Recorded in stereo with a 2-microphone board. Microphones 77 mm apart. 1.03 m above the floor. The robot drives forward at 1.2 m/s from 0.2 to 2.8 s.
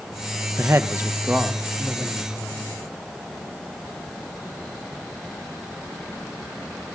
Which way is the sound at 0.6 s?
35° right (ahead or behind).